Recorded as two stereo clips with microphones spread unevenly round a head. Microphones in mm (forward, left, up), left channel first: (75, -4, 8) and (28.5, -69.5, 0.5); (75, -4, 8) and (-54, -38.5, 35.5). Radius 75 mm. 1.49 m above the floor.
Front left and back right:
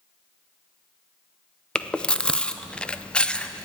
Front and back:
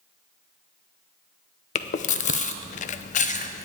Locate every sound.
1.8 s chewing: 20° right, 0.6 m